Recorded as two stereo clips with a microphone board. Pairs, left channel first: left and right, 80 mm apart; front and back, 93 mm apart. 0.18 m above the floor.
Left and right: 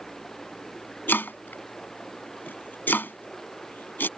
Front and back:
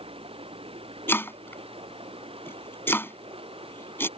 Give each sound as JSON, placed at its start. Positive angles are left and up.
{"t": 0.0, "sound": "running water", "azimuth_deg": 175}
{"t": 1.1, "sound": "chopping", "azimuth_deg": 45}